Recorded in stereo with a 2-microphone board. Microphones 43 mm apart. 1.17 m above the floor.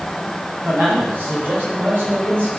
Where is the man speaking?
40° right (ahead or behind), 5.5 m; by 2.5 s 50° right (ahead or behind), 3.5 m.